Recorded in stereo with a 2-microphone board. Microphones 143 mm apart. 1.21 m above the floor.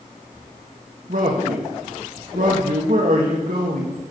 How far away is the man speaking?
About 1.7 m.